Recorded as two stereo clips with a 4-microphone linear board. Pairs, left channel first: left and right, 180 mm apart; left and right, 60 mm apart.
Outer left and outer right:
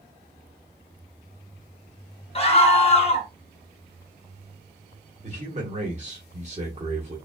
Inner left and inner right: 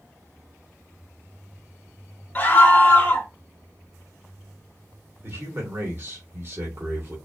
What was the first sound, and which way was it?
A scream, 35° left (ahead or behind).